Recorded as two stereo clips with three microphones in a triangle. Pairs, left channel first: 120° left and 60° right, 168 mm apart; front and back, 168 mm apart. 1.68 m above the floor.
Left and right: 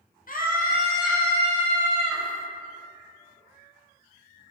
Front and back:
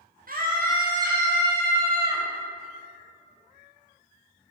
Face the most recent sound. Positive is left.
turn(degrees=150)